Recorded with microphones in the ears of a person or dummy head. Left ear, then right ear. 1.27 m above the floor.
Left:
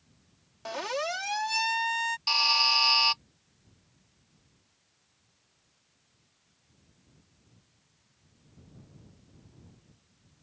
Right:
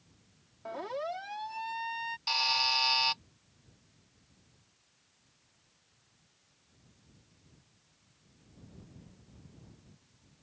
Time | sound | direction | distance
0.7 | a siren | 75° left (ahead or behind) | ?
2.3 | a buzzer | 15° left (ahead or behind) | ?